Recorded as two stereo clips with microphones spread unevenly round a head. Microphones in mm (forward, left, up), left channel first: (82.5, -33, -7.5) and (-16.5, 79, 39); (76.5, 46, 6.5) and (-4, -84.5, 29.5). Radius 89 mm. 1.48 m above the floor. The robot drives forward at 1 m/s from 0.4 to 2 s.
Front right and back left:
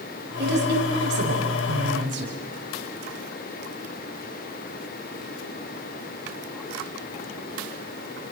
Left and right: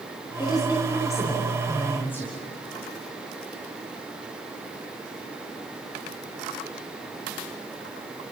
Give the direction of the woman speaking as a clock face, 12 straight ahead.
8 o'clock.